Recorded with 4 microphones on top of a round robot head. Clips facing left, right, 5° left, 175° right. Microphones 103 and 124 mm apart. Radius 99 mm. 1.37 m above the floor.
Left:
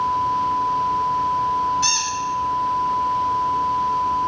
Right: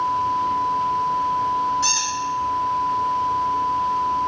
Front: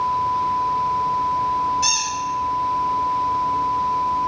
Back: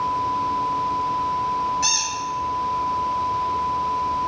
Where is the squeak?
75° left, 2.0 m.